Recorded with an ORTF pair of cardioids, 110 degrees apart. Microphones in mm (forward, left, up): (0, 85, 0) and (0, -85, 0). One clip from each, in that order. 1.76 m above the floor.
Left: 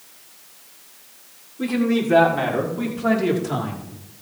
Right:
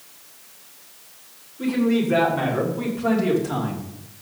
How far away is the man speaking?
About 7 m.